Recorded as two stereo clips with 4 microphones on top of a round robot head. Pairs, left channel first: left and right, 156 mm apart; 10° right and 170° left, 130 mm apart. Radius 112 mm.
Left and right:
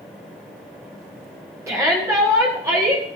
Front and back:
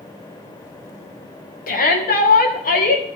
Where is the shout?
15° right, 2 m.